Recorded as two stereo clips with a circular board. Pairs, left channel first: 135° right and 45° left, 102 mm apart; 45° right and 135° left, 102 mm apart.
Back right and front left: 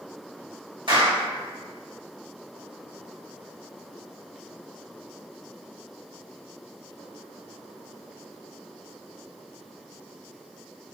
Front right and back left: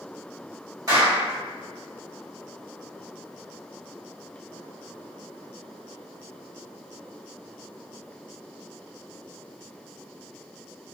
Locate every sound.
0.9 s a clap: 80° left, 1.3 m